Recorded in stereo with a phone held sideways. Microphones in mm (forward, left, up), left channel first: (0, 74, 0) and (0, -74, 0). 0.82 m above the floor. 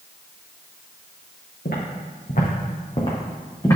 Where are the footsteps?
70° left (ahead or behind), 3 m; by 3.8 s 20° left (ahead or behind), 3 m.